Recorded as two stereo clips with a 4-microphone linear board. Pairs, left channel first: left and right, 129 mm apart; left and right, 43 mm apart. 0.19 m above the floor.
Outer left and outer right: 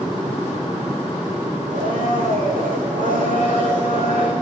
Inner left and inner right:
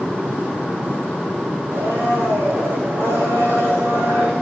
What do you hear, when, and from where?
1.7 s a blender: 85° right, 10 m